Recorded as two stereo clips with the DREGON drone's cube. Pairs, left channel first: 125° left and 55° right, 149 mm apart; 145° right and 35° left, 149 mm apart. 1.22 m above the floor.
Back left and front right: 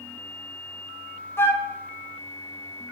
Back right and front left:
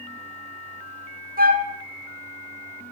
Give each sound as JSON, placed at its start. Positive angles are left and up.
{"t": 1.4, "sound": "a flute", "azimuth_deg": 50, "distance_m": 0.8}